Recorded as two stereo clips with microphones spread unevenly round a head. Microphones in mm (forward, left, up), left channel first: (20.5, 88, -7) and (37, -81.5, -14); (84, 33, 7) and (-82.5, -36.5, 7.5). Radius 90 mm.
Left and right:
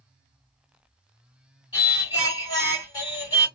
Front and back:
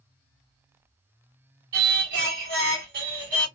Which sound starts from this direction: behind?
Singing, at 1.7 s.